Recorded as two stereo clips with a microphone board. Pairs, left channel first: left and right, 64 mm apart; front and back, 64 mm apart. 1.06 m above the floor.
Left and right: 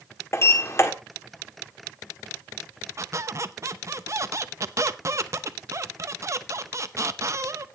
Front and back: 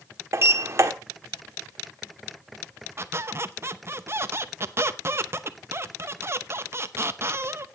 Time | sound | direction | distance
0.3 | a sliding door | 135° left | 1.4 m
3.0 | a squeak | 130° right | 0.7 m